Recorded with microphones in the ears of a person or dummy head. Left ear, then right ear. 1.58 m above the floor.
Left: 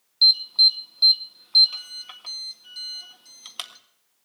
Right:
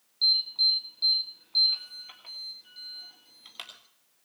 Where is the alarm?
30° left (ahead or behind), 1.5 m.